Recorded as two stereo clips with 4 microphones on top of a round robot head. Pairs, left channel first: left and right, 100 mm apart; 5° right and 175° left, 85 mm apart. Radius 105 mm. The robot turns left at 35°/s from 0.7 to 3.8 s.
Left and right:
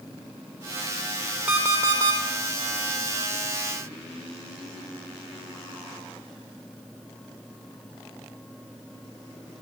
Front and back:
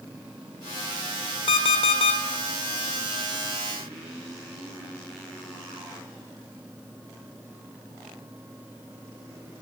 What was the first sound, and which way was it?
An alarm clock, 15° right.